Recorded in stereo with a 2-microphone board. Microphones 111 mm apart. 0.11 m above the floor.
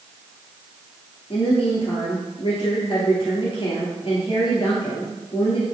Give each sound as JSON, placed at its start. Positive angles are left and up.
{"t": 1.3, "sound": "a woman speaking", "side_deg": 50, "distance_m": 2.0}